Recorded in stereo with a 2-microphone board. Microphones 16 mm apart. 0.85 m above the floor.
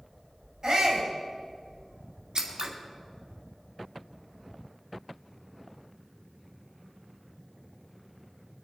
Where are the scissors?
50° right (ahead or behind), 2 m.